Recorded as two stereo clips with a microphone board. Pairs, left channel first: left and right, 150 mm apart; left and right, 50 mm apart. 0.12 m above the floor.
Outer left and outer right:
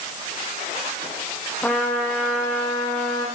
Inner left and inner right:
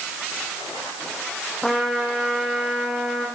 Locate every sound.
1.6 s a trumpet: 10° left (ahead or behind), 2.5 m